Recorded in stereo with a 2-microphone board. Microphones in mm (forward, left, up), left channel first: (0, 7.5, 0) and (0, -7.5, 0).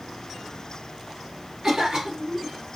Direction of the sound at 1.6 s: 45° right (ahead or behind).